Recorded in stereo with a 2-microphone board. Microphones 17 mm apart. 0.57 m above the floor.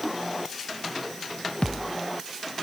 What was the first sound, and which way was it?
A thud, 75° left (ahead or behind).